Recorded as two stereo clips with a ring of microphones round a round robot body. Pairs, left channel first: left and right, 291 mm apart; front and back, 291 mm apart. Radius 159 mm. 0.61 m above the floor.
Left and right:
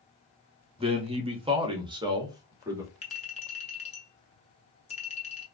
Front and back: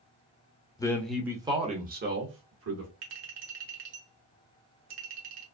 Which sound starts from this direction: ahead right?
A man speaking, at 0.8 s.